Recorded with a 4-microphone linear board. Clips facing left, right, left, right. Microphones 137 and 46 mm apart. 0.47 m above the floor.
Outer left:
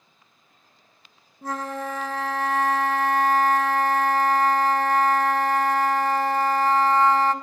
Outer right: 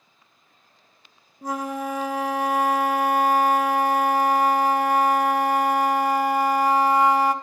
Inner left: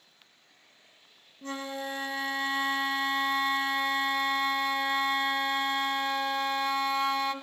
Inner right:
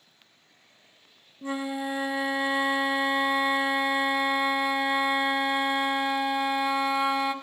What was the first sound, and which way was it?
A flute, 15° right (ahead or behind).